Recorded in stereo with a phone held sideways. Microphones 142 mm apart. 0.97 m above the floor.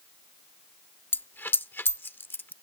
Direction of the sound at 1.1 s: 15° left (ahead or behind).